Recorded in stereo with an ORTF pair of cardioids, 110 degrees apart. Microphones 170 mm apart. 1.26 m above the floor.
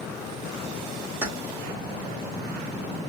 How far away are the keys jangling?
About 1.3 m.